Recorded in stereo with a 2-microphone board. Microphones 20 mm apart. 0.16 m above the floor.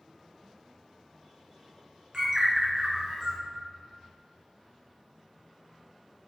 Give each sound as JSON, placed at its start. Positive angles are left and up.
{"t": 2.1, "sound": "a bird", "side_deg": -40, "distance_m": 1.3}